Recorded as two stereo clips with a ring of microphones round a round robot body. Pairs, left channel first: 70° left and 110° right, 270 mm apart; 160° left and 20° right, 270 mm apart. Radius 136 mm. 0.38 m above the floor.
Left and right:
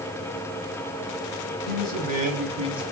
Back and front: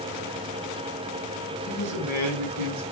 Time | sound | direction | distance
1.7 | a man speaking | 55° right | 4.5 m